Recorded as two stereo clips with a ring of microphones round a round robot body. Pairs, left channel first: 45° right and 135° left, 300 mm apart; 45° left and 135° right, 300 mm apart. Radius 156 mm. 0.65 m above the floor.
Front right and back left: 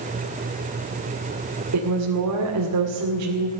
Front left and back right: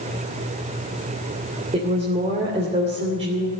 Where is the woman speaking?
155° left, 2.5 m.